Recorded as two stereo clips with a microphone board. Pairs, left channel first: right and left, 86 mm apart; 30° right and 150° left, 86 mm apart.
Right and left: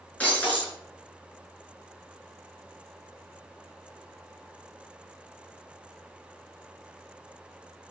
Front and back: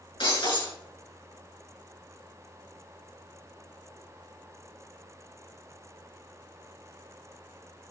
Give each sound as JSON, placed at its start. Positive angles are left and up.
{"t": 0.2, "sound": "breaking glass", "azimuth_deg": -20, "distance_m": 6.5}